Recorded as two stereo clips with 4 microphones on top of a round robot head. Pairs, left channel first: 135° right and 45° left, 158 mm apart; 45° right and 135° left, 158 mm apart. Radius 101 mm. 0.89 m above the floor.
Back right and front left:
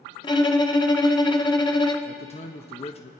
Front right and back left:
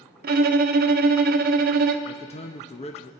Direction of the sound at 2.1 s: 90° right.